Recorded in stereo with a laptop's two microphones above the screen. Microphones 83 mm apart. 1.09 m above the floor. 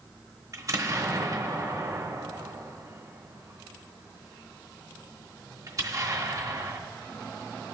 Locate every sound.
0.5 s an explosion: 40° right (ahead or behind), 0.9 m